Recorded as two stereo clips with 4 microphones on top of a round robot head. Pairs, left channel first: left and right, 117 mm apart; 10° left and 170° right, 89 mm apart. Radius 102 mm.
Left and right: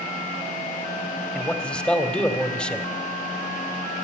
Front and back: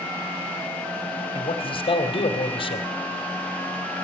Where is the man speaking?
10° left, 2.5 m.